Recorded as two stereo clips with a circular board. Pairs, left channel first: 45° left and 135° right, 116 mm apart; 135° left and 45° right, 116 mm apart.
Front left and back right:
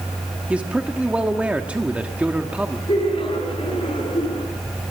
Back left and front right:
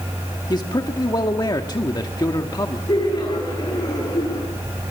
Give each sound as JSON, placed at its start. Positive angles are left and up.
{"t": 0.5, "sound": "a man speaking", "azimuth_deg": 150, "distance_m": 1.4}
{"t": 2.9, "sound": "laughter", "azimuth_deg": 85, "distance_m": 9.5}